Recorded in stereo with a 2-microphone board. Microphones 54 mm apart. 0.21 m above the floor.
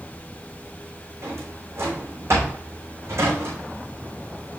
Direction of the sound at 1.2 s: 55° right (ahead or behind).